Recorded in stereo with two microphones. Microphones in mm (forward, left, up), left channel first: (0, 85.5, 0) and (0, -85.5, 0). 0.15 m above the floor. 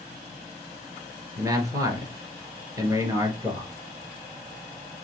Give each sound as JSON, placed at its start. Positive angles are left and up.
{"t": 1.4, "sound": "a man speaking", "side_deg": -20, "distance_m": 2.0}